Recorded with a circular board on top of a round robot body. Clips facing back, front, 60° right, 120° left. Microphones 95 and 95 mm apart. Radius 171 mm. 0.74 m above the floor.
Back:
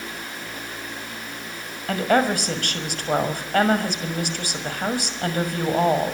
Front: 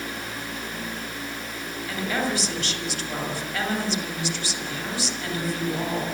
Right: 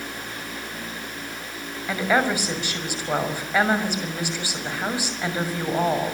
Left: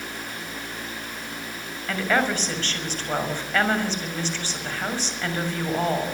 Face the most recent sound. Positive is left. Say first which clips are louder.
# back 7 dB, right 2 dB
turn(degrees=-140)